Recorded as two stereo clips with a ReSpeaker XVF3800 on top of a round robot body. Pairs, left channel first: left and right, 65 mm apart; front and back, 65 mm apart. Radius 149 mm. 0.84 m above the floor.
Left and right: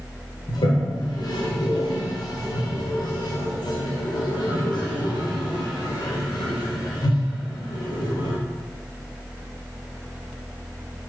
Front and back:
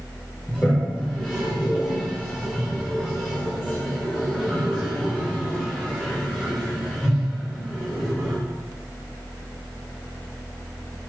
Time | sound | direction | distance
0.5 | a toilet flushing | 80° left | 1.4 m